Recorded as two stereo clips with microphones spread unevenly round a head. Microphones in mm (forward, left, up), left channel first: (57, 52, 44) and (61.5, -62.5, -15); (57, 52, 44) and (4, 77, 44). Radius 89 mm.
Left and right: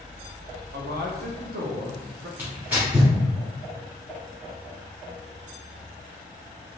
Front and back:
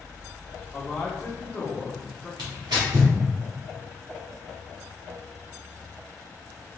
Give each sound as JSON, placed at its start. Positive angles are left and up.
{"t": 0.7, "sound": "a man speaking", "azimuth_deg": -100, "distance_m": 0.7}
{"t": 2.4, "sound": "tearing paper", "azimuth_deg": -175, "distance_m": 0.8}